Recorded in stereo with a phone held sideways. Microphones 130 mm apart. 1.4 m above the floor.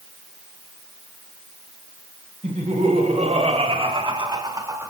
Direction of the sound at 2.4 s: 60° right (ahead or behind).